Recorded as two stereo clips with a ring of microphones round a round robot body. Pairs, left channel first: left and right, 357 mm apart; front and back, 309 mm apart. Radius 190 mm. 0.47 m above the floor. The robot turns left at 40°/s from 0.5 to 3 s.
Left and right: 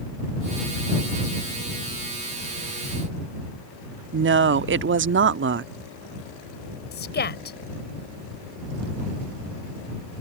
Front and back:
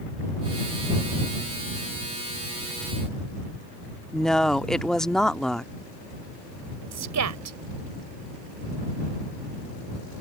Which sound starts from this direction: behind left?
A woman speaking, at 6.9 s.